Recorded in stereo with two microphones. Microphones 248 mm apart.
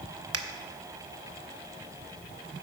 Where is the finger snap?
70° right (ahead or behind), 0.7 m.